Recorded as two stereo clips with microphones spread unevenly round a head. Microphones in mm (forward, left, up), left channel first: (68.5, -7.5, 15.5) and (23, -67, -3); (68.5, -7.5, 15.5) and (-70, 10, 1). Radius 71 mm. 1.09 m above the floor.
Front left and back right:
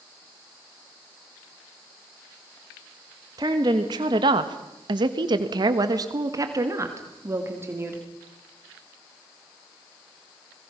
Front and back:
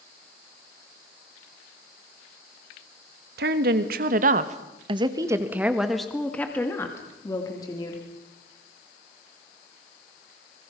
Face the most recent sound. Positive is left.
turn(degrees=-70)